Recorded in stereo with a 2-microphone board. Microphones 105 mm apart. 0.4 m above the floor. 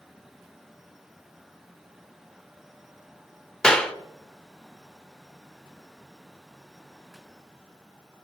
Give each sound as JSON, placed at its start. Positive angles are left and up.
{"t": 3.6, "sound": "a clap", "side_deg": 5, "distance_m": 0.7}